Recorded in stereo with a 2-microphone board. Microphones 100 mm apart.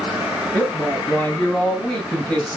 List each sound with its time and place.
0.5 s a woman speaking: 10° left (ahead or behind), 7.5 m; by 2.6 s 15° left (ahead or behind), 5 m